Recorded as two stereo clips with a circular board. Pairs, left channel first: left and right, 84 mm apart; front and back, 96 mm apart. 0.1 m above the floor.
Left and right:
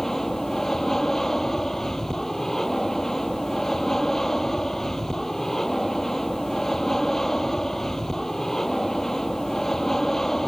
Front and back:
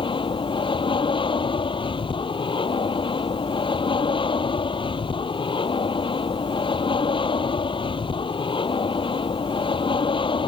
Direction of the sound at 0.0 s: 5° left.